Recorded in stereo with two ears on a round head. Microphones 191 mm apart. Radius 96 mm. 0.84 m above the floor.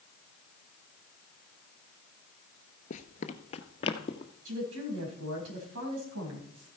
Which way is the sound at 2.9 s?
35° left (ahead or behind).